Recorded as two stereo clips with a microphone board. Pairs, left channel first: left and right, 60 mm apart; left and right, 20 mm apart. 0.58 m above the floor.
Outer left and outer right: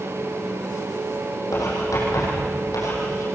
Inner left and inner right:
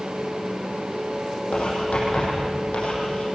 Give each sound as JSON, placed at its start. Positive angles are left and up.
{"t": 1.5, "sound": "writing", "side_deg": 70, "distance_m": 8.5}